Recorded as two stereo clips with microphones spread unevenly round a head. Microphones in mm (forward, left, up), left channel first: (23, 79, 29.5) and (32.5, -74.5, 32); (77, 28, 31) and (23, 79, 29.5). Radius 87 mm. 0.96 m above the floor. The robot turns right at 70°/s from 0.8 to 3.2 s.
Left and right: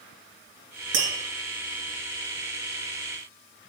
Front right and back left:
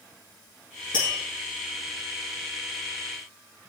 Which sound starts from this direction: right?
Tapping, at 0.9 s.